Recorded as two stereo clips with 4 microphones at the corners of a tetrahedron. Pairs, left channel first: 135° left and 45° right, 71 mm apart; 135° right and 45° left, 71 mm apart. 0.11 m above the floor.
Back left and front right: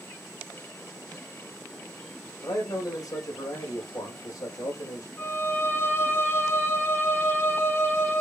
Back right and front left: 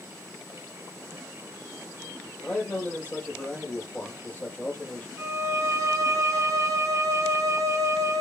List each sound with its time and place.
2.4 s a man speaking: 155° left, 5 m
5.2 s a violin: 85° left, 1.8 m